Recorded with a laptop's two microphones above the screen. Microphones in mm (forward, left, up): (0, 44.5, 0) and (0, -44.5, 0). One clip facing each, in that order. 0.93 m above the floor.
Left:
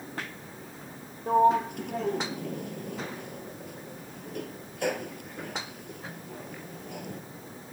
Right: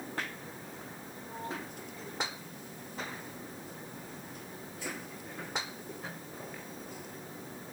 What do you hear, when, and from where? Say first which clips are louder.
1.3 s a sliding door: left 20 dB; 65° left (ahead or behind)